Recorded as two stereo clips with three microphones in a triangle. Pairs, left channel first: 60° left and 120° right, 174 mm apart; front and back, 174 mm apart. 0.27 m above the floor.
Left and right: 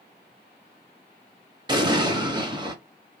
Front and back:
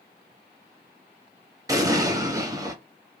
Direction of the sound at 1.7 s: 135° right.